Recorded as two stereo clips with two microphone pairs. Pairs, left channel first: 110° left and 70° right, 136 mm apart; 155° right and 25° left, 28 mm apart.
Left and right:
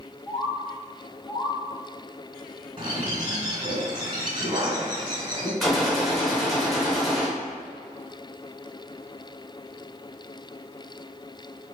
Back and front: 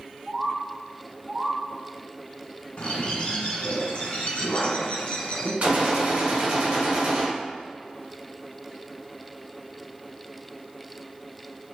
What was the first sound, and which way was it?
A bird, 90° left.